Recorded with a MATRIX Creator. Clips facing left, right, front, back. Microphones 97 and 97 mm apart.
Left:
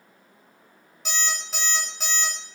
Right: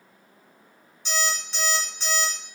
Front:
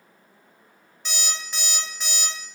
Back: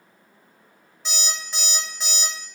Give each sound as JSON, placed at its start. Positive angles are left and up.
{"t": 1.1, "sound": "an alarm clock", "azimuth_deg": 95, "distance_m": 1.1}